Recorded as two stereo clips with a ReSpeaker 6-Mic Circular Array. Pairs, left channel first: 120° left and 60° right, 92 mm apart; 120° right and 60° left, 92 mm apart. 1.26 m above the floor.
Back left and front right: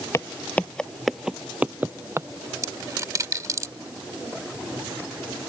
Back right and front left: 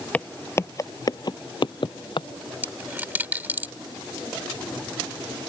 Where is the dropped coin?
10° right.